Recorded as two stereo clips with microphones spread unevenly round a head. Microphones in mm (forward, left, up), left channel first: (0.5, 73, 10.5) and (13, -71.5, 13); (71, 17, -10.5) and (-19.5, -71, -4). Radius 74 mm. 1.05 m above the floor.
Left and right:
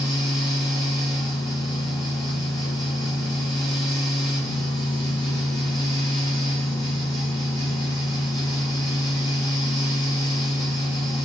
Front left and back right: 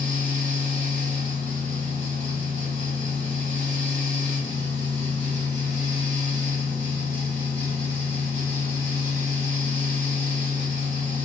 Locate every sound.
0.0 s a fan: 35° left, 3.5 m